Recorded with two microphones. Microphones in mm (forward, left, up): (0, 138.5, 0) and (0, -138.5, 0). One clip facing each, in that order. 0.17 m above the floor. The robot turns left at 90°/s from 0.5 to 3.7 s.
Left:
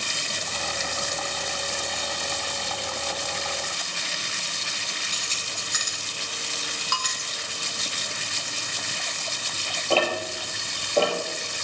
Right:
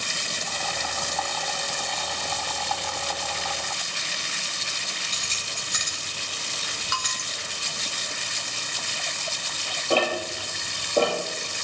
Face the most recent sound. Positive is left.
turn(degrees=-15)  # may be behind; listen again after turning